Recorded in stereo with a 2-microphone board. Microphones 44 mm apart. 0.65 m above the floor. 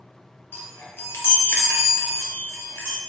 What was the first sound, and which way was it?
A chime, 65° left (ahead or behind).